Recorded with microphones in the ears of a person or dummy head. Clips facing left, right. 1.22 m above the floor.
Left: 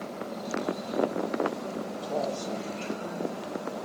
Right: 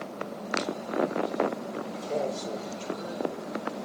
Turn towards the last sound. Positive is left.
turn(degrees=-75)  # may be behind; listen again after turning